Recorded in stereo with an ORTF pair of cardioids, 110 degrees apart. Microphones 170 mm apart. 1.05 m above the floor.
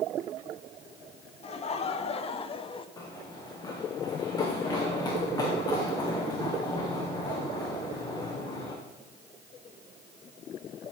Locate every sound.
1.4 s laughter: 40° left, 1.9 m; by 2.9 s 30° left, 1.0 m
3.0 s running footsteps: 25° left, 4 m